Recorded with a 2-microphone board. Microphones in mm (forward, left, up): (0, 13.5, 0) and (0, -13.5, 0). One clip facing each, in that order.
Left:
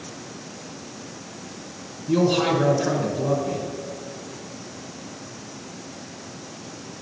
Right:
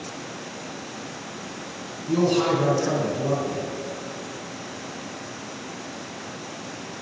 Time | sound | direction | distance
2.1 | a man speaking | 15° left (ahead or behind) | 1.3 m